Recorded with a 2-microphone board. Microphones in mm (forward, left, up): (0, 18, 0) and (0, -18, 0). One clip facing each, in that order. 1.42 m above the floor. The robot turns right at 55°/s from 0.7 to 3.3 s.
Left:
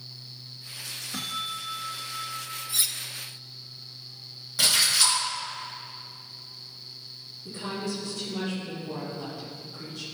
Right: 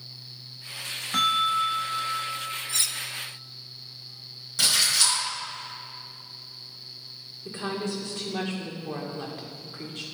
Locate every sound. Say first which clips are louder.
1.1 s a bell: right 12 dB; 70° right, 0.5 m; by 2.6 s 10° left, 0.5 m
2.7 s cutlery clinking: left 2 dB; 10° left (ahead or behind), 0.6 m; by 3.0 s 20° left (ahead or behind), 0.6 m
4.6 s a splash: even; 10° left (ahead or behind), 3 m
7.5 s a woman speaking: right 2 dB; 55° right (ahead or behind), 1.9 m